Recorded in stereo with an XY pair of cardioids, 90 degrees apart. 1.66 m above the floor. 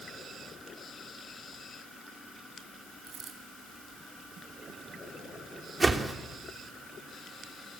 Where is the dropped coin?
65° right, 4.5 m.